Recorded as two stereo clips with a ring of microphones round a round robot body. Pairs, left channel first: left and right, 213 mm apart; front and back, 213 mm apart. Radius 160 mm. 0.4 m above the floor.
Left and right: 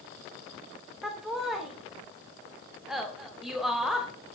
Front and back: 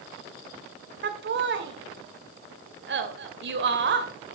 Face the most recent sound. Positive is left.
turn(degrees=180)